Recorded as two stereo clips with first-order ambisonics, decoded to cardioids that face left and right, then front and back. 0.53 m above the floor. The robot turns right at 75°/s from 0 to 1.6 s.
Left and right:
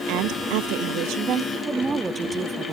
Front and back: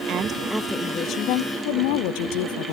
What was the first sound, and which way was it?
A woman speaking, 130° right.